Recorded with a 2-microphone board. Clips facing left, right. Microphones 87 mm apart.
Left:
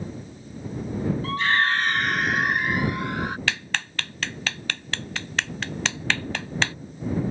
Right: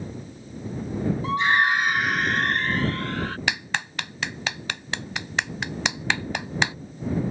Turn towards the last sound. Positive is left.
turn(degrees=-15)  # may be behind; listen again after turning